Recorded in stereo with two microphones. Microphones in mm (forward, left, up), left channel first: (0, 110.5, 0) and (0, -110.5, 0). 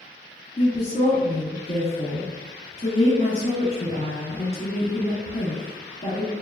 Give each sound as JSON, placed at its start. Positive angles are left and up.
{"t": 0.6, "sound": "a woman speaking", "side_deg": 35, "distance_m": 1.3}